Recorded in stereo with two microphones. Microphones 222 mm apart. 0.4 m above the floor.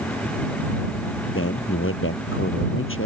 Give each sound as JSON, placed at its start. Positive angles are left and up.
{"t": 1.4, "sound": "a man speaking", "side_deg": 65}